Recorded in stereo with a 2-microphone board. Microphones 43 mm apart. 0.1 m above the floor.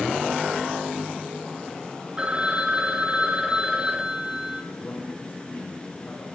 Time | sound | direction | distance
2.2 | a phone ringing | 25° right (ahead or behind) | 1.1 m
4.7 | a man speaking | 75° left (ahead or behind) | 4.5 m